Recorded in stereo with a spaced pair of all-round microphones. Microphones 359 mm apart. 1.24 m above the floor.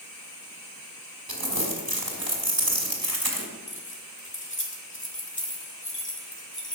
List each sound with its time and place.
1.3 s crumpling: 75° right (ahead or behind), 2.5 m
3.7 s keys jangling: 30° left (ahead or behind), 1.9 m